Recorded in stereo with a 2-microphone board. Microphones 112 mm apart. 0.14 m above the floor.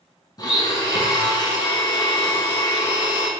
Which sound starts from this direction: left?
A blender, at 0.4 s.